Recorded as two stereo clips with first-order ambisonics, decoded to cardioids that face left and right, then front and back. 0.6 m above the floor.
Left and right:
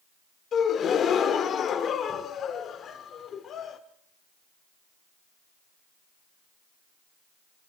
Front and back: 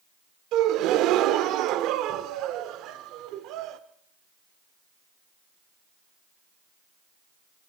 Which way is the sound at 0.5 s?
150° left.